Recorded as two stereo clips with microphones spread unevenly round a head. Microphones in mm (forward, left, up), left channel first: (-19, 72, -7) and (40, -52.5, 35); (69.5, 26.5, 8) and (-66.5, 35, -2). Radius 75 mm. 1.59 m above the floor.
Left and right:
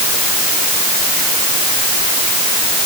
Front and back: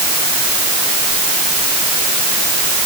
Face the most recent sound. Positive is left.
No sound to turn to.